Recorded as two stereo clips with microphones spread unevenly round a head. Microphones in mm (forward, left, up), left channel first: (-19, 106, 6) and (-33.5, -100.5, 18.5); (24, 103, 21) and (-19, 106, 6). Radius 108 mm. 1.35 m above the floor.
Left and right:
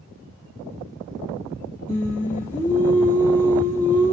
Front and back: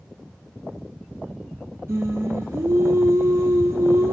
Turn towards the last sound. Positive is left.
turn(degrees=165)